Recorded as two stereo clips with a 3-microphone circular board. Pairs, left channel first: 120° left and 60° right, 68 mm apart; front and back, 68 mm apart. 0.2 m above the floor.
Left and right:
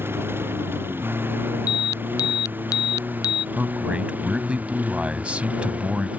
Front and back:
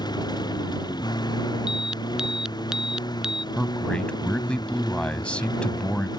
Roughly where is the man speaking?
Ahead right.